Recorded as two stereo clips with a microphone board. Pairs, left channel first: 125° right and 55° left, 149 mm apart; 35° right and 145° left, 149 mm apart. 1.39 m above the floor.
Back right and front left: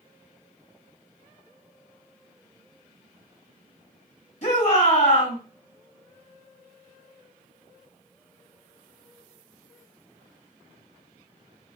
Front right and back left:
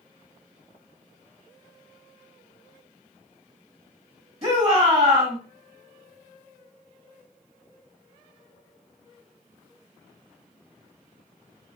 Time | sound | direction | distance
4.4 | a shout | 160° right | 1.6 m